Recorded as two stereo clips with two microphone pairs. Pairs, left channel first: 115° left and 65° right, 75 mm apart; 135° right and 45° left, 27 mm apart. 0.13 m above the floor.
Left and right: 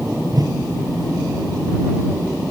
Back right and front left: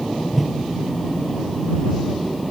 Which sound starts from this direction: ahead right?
A whoosh, at 0.3 s.